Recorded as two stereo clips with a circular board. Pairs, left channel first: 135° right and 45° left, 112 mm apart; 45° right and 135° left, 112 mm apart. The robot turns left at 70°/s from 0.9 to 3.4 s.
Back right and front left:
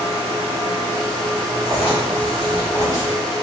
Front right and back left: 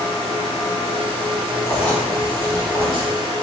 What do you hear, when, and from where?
1.6 s writing: 105° right, 1.6 m; by 3.1 s 155° left, 1.6 m